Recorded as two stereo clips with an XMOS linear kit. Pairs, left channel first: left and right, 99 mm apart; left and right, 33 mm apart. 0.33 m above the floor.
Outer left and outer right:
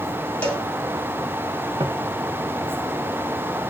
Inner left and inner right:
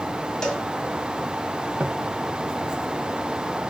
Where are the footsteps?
45° right (ahead or behind), 0.6 m.